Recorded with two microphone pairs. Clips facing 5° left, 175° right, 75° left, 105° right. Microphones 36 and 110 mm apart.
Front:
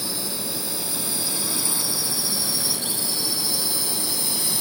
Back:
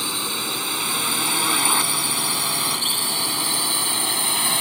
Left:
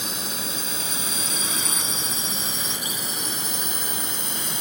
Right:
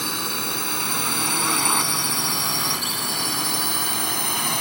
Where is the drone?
135° right; by 4.6 s 130° right.